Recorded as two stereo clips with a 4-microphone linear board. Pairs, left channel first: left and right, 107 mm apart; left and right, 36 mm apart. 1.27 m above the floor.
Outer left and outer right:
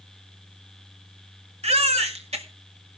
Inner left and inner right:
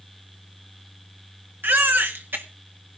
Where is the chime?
I don't hear a chime.